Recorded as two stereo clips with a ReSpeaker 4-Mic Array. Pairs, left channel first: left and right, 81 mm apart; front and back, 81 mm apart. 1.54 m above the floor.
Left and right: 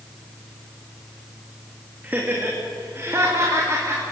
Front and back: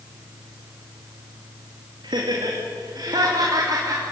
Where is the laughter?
160° right, 3 m; by 4.0 s 140° right, 4 m.